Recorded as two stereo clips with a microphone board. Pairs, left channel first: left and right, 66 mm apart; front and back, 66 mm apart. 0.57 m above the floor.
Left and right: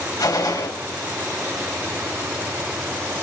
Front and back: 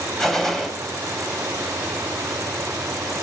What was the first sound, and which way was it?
A gunshot, 85° left.